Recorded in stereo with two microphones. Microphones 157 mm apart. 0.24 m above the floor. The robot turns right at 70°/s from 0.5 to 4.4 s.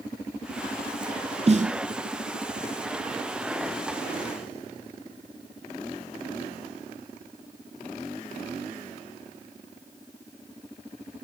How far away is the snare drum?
About 0.6 m.